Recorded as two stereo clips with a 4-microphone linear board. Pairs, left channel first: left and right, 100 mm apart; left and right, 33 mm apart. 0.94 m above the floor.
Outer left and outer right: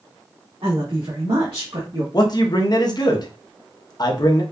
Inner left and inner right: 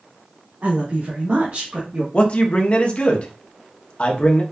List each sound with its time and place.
0.6 s a woman speaking: 70° right (ahead or behind), 1.9 m; by 2.0 s 40° right (ahead or behind), 1.1 m
2.1 s a man speaking: 40° left (ahead or behind), 0.8 m